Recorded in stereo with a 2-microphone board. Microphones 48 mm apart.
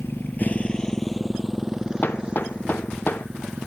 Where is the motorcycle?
55° left (ahead or behind); by 3.7 s 25° right (ahead or behind).